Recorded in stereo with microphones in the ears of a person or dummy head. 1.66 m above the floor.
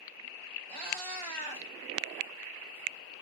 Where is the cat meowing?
5° left (ahead or behind), 4.5 m.